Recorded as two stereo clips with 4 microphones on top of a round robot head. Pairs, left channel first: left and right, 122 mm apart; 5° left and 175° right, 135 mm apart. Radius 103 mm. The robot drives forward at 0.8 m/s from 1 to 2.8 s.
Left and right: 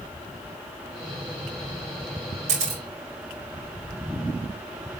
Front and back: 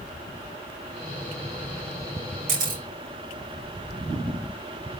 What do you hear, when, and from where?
2.5 s a camera shutter: 135° right, 4.5 m